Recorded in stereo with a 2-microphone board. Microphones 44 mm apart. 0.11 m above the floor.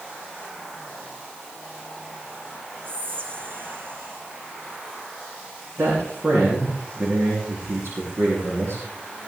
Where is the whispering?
55° right (ahead or behind), 3.5 m.